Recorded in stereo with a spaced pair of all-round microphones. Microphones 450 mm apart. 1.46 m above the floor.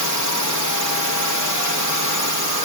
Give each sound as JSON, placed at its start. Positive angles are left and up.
{"t": 0.0, "sound": "a drone", "side_deg": 40}